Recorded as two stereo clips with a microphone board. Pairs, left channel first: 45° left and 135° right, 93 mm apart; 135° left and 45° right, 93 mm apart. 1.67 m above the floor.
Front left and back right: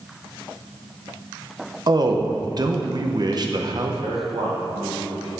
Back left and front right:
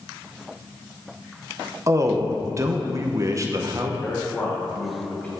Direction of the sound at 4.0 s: 150° right.